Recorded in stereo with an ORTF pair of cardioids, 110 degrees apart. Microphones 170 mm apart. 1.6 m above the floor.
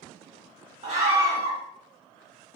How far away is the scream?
About 1.9 m.